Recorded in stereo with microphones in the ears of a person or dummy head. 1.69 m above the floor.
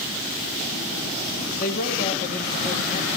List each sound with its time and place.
1.6 s a man speaking: 45° left (ahead or behind), 1.8 m